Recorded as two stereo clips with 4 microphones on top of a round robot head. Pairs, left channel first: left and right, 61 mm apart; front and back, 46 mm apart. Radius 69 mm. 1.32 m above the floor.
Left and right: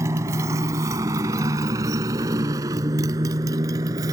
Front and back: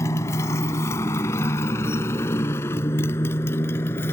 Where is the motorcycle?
35° right; by 4.1 s 50° right.